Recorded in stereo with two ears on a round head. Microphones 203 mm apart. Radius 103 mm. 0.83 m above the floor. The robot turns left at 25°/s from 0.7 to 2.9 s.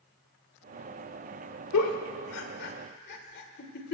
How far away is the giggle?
About 1.5 m.